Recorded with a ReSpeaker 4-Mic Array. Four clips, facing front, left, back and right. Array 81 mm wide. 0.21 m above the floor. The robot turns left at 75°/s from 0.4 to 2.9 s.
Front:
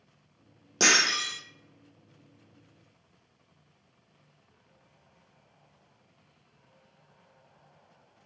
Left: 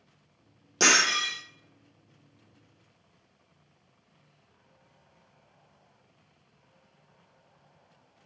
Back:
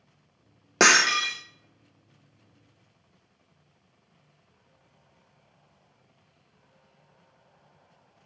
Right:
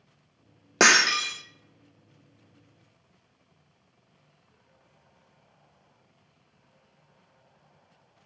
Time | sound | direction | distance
0.8 | breaking glass | 135° right | 1.1 m